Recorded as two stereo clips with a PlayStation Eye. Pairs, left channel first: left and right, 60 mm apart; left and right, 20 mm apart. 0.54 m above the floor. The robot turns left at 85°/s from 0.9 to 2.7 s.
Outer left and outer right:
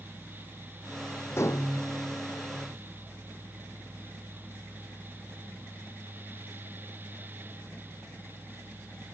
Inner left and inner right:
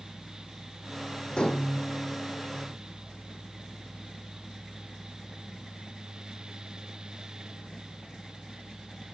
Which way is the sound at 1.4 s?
135° left.